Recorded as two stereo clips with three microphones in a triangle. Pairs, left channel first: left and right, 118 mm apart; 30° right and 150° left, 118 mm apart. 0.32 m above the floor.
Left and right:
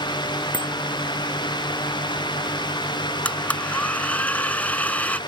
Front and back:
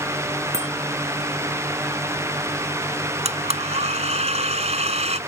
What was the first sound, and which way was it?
A bicycle bell, 165° left.